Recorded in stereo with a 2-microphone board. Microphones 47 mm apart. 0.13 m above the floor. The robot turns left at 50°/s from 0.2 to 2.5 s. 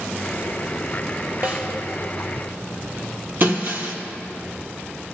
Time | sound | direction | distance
1.4 | a snare drum | 45° right (ahead or behind) | 1.7 m
3.4 | breaking glass | 50° right (ahead or behind) | 1.1 m